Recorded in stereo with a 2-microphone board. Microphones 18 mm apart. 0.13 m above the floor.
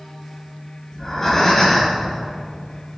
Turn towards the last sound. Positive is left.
turn(degrees=20)  # may be behind; listen again after turning